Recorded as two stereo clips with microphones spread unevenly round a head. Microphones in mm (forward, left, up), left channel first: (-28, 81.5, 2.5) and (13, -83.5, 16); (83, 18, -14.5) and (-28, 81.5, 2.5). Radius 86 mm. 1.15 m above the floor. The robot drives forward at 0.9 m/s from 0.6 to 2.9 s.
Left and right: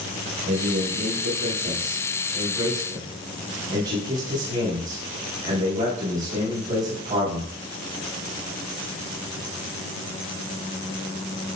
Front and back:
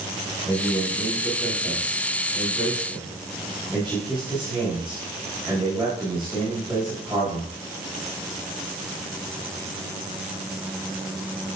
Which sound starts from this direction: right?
A man speaking, at 0.5 s.